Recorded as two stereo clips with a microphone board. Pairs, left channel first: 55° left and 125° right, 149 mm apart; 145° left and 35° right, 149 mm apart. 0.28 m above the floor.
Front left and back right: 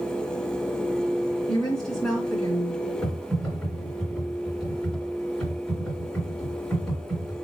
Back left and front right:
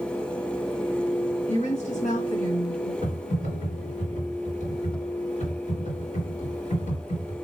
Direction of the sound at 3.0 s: 140° left.